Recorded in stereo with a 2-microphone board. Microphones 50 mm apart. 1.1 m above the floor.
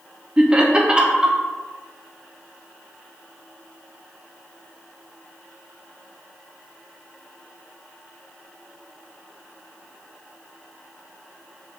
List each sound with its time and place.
0.4 s laughter: 20° right (ahead or behind), 0.6 m